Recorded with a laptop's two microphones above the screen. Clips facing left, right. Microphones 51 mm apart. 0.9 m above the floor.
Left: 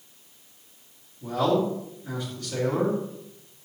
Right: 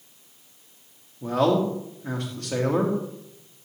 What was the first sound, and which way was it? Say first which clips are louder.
A man speaking: right 2 dB; 60° right (ahead or behind).